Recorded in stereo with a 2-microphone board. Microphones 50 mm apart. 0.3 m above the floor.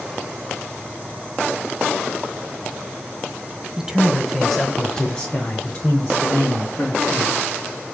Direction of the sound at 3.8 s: 15° right (ahead or behind).